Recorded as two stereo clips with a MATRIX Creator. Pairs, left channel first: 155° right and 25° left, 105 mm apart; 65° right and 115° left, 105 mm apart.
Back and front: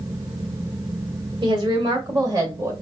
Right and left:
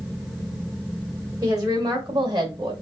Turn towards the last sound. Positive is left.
turn(degrees=80)